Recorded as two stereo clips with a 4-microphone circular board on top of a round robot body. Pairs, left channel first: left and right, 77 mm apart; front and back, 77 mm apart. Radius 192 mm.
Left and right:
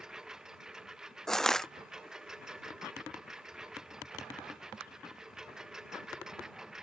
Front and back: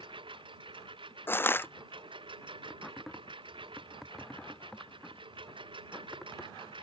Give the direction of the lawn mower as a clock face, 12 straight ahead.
6 o'clock.